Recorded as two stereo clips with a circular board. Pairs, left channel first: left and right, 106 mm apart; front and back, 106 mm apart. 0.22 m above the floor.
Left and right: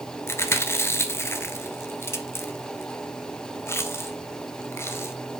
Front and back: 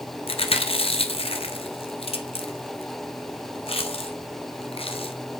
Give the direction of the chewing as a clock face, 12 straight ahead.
11 o'clock.